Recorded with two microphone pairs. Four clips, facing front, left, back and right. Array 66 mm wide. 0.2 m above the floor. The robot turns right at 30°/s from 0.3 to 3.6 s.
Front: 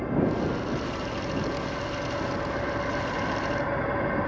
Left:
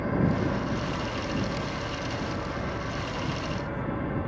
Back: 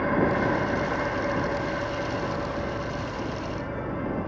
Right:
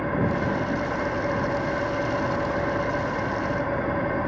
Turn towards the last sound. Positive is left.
turn(degrees=-55)